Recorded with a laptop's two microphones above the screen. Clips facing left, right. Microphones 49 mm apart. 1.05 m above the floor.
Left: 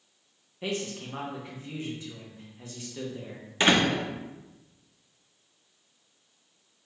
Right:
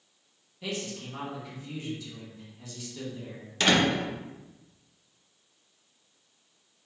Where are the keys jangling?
I don't hear keys jangling.